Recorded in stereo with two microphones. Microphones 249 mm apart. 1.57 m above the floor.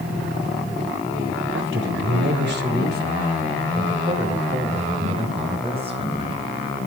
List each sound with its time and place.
1.5 s a man speaking: 55° right (ahead or behind), 3.5 m; by 6.5 s 20° right (ahead or behind), 5.5 m